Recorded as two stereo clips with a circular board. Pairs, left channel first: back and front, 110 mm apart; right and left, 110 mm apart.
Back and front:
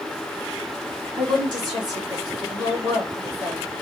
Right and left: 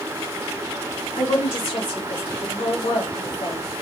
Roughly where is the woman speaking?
Ahead right.